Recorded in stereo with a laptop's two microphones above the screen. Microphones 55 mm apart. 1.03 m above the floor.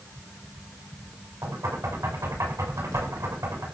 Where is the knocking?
85° right, 7.5 m.